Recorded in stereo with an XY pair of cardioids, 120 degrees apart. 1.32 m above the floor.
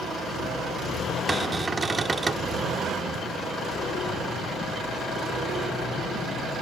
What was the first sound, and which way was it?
A cupboard door, 25° right.